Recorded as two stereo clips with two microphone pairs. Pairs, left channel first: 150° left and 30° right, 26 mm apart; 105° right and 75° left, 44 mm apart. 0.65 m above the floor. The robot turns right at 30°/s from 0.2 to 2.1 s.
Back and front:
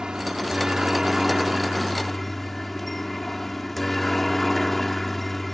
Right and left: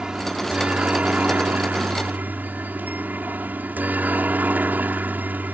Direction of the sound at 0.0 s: 15° left.